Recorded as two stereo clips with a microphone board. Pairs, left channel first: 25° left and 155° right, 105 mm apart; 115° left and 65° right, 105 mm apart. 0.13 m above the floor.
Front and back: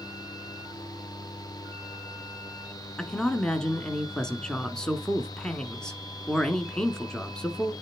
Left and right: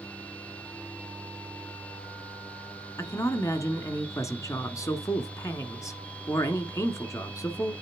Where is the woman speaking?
100° left, 1.2 m.